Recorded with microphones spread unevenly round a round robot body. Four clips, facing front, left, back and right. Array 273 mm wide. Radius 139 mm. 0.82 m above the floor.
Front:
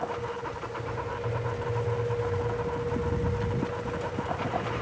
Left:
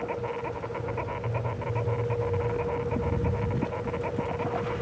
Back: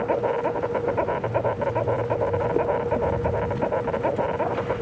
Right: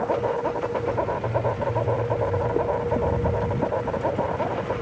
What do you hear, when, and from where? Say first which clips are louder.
0.0 s an insect: right 8 dB, back 10 dB; 145° right